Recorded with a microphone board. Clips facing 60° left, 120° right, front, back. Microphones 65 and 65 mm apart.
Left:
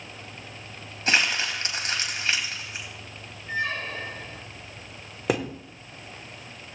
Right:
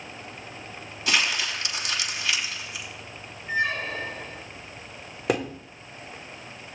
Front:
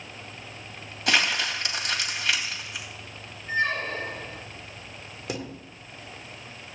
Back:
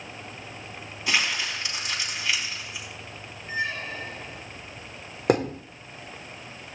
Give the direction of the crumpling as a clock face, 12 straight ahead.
12 o'clock.